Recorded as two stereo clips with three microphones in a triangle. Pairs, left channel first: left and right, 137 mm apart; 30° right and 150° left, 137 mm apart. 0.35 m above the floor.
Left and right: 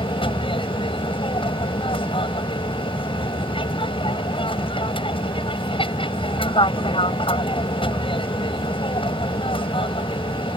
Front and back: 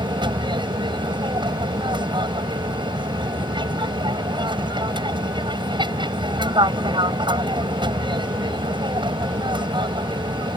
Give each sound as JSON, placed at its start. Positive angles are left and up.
{"t": 0.0, "sound": "an aircraft", "azimuth_deg": 115}